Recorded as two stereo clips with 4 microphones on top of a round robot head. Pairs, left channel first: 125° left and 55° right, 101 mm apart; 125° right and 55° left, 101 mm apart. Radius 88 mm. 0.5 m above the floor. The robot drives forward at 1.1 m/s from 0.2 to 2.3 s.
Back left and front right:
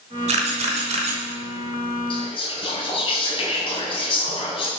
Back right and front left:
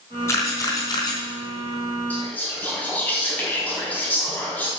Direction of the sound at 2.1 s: 160° left.